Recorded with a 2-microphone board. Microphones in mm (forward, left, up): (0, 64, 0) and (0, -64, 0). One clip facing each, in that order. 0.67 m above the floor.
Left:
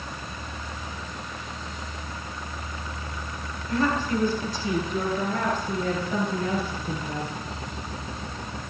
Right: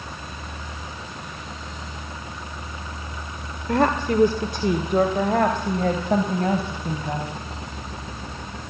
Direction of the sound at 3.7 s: 70° right (ahead or behind).